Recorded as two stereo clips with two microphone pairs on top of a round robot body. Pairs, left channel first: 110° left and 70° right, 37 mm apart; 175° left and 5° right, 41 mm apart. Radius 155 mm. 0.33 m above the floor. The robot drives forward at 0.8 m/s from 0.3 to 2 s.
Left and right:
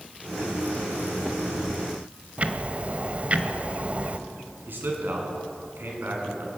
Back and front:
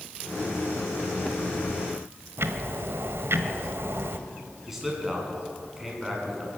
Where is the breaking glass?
I don't hear breaking glass.